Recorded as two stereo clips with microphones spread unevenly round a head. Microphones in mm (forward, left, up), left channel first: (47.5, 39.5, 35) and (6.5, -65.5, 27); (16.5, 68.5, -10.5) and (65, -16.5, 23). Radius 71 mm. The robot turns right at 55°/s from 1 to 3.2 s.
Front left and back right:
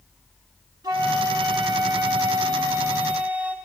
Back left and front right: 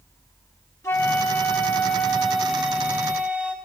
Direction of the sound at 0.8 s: 160° right.